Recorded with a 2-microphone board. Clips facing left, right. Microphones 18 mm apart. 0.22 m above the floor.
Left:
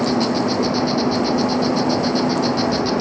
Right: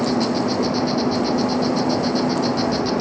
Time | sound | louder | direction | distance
0.0 | an insect | left 1 dB | 10° left (ahead or behind) | ?